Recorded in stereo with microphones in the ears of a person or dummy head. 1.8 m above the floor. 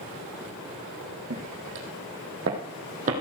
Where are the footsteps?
65° right (ahead or behind), 4 m; by 3.2 s 40° right (ahead or behind), 4 m.